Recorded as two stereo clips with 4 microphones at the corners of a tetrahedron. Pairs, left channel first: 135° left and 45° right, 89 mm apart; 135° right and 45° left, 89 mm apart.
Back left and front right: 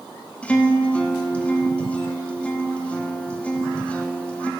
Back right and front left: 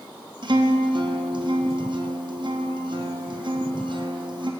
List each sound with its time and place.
0.4 s a guitar: 60° left, 0.6 m